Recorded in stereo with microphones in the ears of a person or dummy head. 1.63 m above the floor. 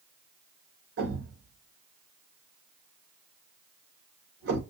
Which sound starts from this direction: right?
A thud, at 1.0 s.